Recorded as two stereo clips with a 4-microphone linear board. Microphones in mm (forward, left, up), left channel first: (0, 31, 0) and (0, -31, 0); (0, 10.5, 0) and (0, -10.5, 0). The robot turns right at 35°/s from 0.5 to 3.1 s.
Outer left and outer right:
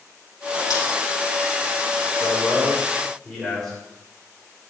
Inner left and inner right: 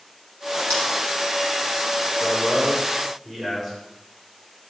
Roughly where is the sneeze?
No sneeze in this recording.